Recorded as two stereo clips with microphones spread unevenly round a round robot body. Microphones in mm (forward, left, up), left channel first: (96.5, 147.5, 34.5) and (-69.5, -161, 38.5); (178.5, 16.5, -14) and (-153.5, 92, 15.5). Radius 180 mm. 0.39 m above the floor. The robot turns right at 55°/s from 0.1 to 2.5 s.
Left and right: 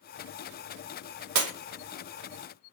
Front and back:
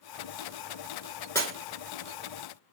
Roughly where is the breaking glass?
Right.